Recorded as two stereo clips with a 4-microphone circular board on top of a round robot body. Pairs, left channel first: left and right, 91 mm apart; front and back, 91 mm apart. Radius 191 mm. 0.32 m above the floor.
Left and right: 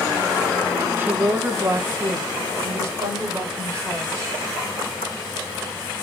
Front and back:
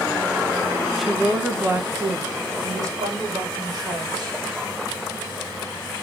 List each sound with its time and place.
1.0 s a woman speaking: 90° right, 1.2 m; by 4.4 s 145° right, 3 m